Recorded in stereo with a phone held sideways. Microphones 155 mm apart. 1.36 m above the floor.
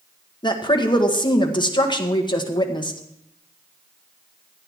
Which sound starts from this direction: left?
A woman speaking, at 0.4 s.